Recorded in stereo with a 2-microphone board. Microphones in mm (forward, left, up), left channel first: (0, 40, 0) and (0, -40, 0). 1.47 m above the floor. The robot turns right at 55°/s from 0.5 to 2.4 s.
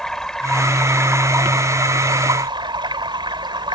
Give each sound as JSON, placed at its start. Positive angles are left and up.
{"t": 0.0, "sound": "running water", "azimuth_deg": 175}